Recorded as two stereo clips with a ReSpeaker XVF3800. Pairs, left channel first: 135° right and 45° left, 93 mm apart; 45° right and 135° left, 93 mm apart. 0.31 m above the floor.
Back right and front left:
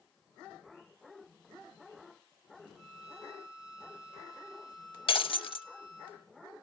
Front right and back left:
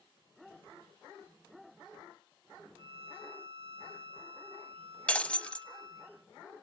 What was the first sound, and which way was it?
A violin, 125° left.